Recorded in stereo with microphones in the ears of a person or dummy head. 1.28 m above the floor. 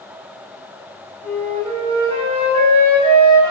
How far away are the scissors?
I don't hear scissors.